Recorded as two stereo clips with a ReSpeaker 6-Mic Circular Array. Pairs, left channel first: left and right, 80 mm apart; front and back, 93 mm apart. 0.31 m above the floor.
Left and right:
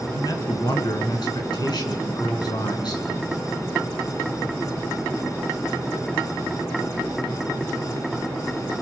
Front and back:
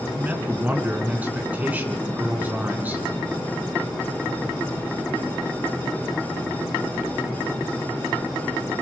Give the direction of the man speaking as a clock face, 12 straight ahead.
8 o'clock.